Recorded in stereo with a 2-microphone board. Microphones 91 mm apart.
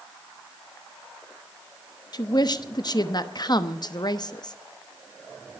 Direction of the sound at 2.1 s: 50° left (ahead or behind).